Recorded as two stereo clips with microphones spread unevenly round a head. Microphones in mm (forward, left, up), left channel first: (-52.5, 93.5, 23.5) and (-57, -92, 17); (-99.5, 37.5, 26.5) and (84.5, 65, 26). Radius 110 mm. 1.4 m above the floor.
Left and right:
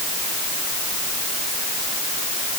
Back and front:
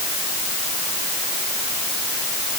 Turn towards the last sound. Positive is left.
No sound to turn to.